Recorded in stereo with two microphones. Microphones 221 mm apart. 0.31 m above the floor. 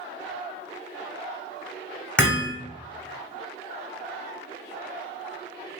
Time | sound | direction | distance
2.2 | hammering | 5° left (ahead or behind) | 1.1 m